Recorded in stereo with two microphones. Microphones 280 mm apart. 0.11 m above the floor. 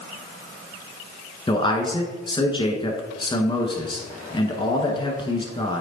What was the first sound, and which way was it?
A man speaking, 15° left (ahead or behind).